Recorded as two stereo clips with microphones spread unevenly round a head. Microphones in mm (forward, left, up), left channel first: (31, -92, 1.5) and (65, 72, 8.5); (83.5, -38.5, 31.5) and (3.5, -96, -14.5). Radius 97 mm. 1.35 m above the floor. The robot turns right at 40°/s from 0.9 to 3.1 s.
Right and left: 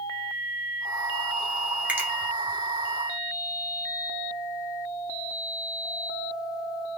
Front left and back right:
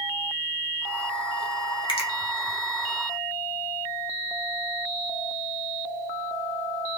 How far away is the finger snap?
About 0.8 m.